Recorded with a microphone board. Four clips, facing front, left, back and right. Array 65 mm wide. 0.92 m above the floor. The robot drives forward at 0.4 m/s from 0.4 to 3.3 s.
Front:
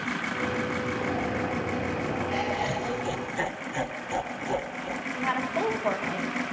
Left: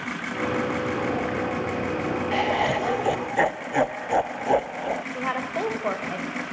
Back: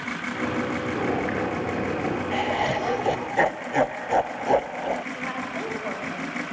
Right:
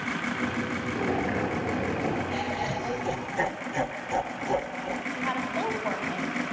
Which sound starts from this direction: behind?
Boiling, at 0.9 s.